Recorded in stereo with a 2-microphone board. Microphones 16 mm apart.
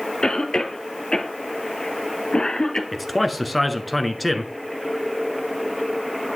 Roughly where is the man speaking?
Centre.